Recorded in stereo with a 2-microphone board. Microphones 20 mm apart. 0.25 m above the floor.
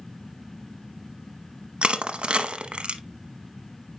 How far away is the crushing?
About 0.8 m.